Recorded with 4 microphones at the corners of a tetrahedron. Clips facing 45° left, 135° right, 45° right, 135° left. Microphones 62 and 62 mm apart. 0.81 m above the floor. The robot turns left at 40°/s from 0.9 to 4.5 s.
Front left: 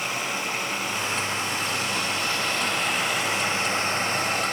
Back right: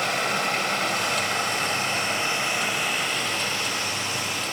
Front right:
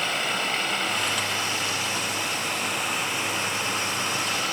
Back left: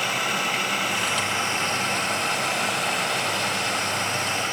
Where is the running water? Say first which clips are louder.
Back right 4 dB, back left 2 dB; 140° right, 2.0 m; by 4.5 s 75° left, 2.0 m.